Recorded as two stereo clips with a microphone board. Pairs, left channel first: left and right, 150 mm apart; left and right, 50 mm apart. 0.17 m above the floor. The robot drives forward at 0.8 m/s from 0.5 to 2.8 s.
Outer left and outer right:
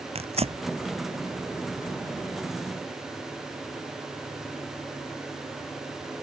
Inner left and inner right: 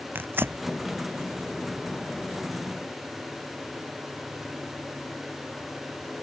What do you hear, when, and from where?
0.1 s tearing paper: 45° right (ahead or behind)